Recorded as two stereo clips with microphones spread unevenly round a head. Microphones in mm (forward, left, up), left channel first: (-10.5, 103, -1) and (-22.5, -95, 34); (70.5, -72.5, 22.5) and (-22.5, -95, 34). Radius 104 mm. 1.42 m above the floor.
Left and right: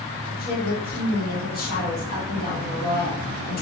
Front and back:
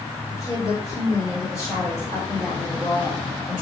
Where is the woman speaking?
130° left, 1.4 m.